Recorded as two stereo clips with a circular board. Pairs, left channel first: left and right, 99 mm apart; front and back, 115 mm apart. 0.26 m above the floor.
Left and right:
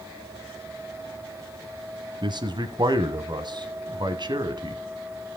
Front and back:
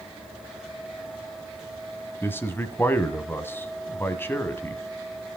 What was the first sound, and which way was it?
A man speaking, 65° right.